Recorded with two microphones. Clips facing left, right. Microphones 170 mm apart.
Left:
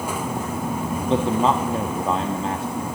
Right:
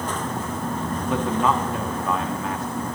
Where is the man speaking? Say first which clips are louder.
Left 3 dB; 30° left (ahead or behind), 1.2 m.